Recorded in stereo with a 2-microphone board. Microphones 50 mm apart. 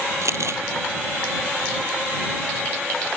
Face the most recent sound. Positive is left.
turn(degrees=-70)  # may be behind; listen again after turning